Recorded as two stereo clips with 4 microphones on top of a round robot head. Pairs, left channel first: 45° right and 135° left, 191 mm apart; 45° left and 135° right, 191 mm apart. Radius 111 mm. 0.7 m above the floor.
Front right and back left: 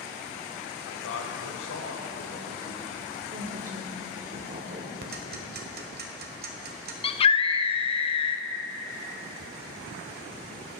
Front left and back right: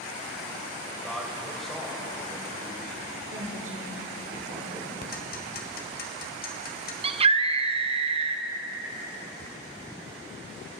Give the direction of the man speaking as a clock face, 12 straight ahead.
1 o'clock.